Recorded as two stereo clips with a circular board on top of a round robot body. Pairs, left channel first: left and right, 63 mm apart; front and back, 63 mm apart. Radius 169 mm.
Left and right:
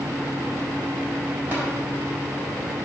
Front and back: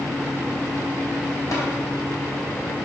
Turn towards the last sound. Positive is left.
turn(degrees=-35)